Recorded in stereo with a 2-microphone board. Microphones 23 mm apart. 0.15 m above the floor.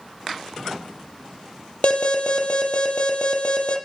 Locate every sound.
1.8 s an alarm: 60° left (ahead or behind), 4.5 m